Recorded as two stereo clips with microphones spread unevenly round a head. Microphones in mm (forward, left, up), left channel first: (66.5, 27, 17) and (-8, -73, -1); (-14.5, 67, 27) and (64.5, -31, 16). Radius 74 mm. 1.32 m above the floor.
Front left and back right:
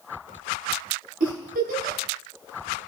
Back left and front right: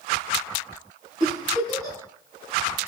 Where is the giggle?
120° right, 8.5 m.